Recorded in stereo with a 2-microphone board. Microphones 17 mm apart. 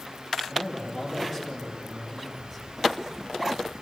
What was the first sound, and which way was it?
A man speaking, 10° right (ahead or behind).